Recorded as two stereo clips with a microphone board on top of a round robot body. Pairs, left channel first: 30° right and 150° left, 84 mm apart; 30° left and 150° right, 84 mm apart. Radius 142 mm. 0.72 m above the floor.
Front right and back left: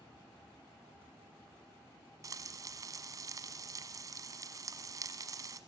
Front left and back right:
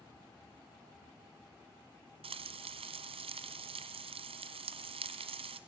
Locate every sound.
2.2 s frying: 160° right, 1.1 m